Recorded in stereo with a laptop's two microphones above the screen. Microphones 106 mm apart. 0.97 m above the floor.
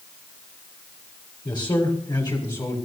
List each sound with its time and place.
1.4 s a man speaking: 45° left (ahead or behind), 4 m